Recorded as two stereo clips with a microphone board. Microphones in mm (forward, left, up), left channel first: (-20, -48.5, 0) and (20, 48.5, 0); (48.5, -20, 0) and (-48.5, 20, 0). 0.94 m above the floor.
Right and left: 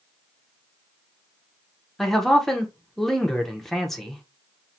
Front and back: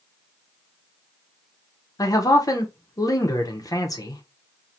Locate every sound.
2.0 s a man speaking: 25° right, 0.7 m